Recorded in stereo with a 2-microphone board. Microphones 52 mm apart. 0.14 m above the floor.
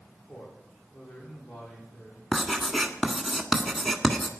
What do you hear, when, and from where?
0.3 s a man speaking: 50° left (ahead or behind), 9.5 m
2.3 s writing: centre (ahead or behind), 1.5 m